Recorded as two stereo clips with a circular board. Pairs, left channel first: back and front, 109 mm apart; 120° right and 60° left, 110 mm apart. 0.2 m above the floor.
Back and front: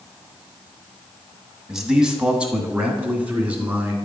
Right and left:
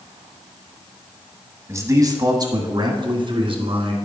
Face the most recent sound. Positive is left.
turn(degrees=75)